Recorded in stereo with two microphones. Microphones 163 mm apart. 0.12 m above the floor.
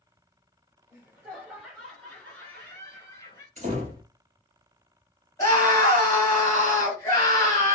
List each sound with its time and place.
0.9 s laughter: 10° right (ahead or behind), 1.8 m; by 3.5 s 25° left (ahead or behind), 1.5 m
3.6 s a door slam: 45° right (ahead or behind), 1.5 m
5.4 s a scream: 20° left (ahead or behind), 1.7 m